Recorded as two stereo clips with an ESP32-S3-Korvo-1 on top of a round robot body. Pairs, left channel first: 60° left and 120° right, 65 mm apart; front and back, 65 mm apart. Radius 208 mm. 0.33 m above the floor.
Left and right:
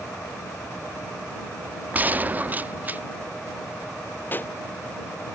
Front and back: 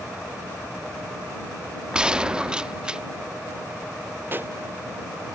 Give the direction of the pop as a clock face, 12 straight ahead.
8 o'clock.